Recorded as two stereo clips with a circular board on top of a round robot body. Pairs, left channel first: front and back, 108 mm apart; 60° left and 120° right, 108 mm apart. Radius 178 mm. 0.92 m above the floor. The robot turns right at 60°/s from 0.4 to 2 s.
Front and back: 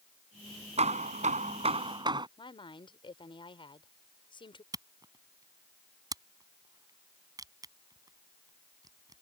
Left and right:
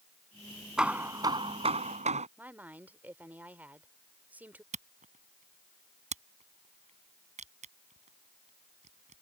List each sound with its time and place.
0.8 s hammering: 155° left; by 2.3 s 130° right
2.4 s a woman speaking: 45° right
4.7 s a camera shutter: 125° right